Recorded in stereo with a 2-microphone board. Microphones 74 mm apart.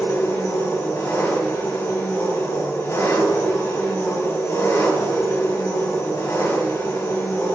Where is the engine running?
50° left (ahead or behind), 3.5 m.